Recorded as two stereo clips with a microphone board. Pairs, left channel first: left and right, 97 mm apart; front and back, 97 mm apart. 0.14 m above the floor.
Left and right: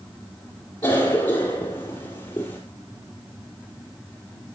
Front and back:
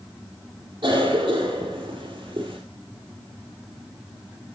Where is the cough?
140° left, 3.5 m.